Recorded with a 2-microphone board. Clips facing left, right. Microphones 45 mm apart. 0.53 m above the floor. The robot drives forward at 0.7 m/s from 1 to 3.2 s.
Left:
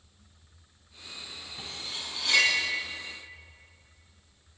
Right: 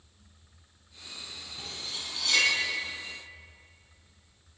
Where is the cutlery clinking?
15° left (ahead or behind), 2 m; by 2.5 s 10° left (ahead or behind), 3 m.